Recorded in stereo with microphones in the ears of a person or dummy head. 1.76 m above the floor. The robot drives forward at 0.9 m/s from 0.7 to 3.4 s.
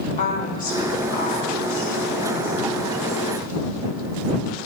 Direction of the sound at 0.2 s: 40° left (ahead or behind).